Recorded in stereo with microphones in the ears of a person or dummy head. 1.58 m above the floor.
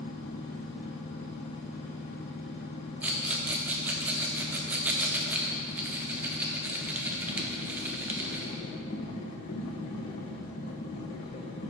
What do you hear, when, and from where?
0.0 s a machine running: 25° left (ahead or behind), 0.7 m
3.0 s a rattle: 10° right (ahead or behind), 0.7 m